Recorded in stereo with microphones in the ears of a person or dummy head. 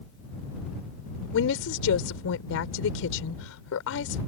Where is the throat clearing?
No throat clearing in this recording.